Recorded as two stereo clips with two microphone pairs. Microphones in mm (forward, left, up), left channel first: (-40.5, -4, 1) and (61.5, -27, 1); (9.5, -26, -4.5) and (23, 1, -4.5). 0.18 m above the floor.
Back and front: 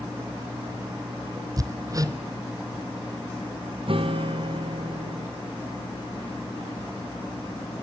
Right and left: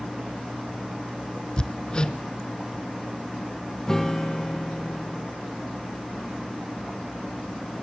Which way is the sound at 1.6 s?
60° right.